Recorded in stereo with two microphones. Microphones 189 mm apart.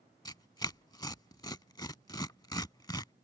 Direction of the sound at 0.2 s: 20° left (ahead or behind).